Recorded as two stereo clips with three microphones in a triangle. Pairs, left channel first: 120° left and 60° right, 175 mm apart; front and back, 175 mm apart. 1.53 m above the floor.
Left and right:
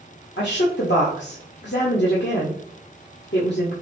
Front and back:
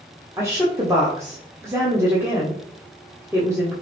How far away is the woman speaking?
About 0.9 m.